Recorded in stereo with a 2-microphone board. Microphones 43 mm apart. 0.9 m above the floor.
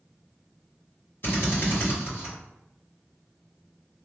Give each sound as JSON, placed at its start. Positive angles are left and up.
{"t": 1.2, "sound": "a drill", "side_deg": 55, "distance_m": 1.7}